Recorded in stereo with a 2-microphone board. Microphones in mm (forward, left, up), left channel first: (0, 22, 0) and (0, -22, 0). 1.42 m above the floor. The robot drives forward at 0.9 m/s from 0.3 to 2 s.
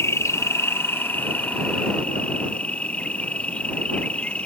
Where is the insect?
80° left; by 4.5 s 30° left (ahead or behind).